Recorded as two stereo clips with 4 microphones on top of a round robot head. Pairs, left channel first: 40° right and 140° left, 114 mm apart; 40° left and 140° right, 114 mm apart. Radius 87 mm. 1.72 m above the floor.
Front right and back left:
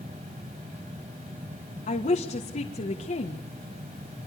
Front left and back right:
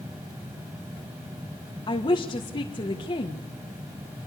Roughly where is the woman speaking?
Ahead.